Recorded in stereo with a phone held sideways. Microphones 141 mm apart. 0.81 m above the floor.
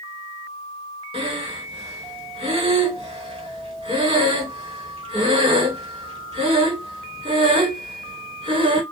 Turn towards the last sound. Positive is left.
turn(degrees=-40)  # may be behind; listen again after turning